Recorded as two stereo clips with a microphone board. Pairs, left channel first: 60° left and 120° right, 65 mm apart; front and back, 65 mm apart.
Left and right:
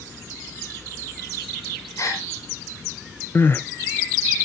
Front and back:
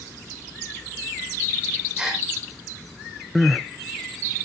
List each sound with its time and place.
2.0 s a gasp: 100° left, 5.5 m
3.4 s crying: 90° left, 0.7 m